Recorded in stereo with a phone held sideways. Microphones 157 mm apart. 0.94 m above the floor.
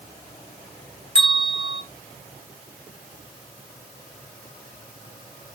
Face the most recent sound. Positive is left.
turn(degrees=-35)  # may be behind; listen again after turning